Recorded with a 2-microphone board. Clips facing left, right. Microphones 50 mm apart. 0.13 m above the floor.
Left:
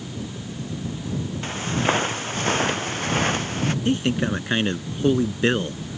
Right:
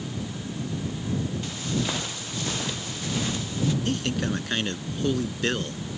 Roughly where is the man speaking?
Left.